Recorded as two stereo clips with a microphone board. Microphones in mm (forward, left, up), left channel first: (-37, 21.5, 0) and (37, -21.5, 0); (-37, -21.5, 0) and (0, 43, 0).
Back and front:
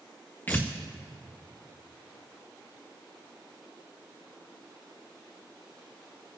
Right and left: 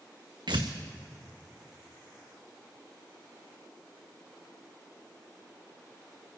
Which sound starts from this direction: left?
Tearing paper, at 0.5 s.